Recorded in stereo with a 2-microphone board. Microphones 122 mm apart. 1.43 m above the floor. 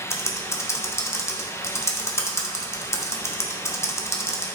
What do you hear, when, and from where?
0.1 s typing on a keyboard: 25° left (ahead or behind), 1.1 m